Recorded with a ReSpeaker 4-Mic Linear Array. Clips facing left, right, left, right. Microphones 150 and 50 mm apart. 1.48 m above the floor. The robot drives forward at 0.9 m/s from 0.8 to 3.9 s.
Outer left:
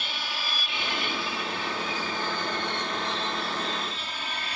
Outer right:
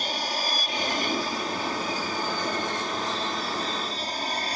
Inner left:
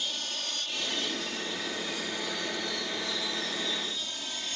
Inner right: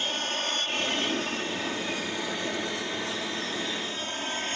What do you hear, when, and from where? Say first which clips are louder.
0.0 s an aircraft: outer right 6 dB, inner right 6 dB; 40° right (ahead or behind)